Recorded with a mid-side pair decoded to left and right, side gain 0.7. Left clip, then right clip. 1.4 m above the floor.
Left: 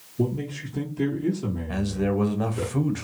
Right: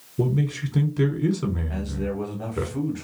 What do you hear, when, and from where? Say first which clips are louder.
0.2 s a man speaking: right 2 dB; 70° right, 1.1 m
1.7 s a man speaking: left 4 dB; 30° left, 0.8 m